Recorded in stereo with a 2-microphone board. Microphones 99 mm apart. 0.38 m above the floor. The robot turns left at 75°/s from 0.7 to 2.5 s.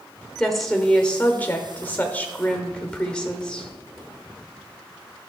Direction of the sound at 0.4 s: Centre (ahead or behind).